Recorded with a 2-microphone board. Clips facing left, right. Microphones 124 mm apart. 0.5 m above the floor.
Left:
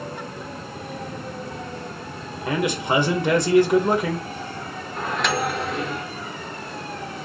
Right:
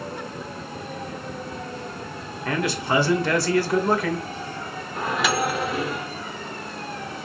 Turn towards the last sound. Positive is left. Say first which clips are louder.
# right 1 dB
turn(degrees=-5)  # may be behind; listen again after turning